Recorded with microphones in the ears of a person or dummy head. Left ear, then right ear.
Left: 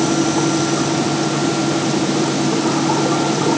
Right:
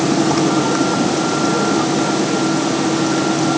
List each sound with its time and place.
Only background noise.